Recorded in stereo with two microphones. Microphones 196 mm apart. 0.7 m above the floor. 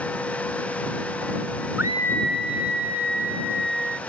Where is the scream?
5° right (ahead or behind); by 4.0 s 65° right (ahead or behind).